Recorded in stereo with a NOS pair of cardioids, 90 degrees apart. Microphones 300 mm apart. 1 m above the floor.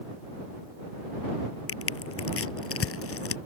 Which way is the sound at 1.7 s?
50° left.